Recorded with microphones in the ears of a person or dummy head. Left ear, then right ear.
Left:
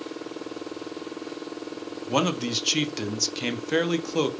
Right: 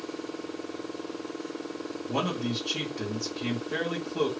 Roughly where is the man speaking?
Left.